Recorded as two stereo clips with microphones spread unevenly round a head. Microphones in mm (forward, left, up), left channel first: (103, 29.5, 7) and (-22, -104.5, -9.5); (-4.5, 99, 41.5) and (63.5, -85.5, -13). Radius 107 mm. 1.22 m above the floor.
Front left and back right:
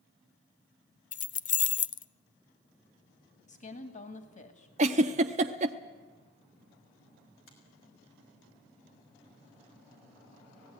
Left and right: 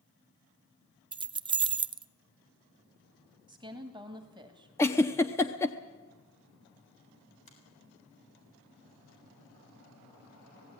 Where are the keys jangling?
Straight ahead, 0.6 m.